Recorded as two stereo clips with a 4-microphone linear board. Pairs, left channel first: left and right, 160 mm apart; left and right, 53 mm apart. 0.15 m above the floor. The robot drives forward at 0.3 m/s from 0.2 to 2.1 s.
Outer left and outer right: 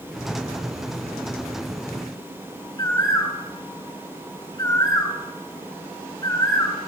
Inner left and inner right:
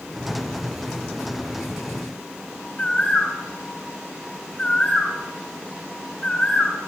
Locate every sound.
2.8 s a bird: 25° left (ahead or behind), 2.5 m